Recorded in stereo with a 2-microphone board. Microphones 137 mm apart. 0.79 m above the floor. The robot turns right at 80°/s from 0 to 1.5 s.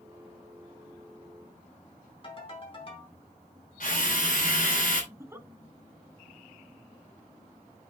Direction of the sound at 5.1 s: 15° right (ahead or behind).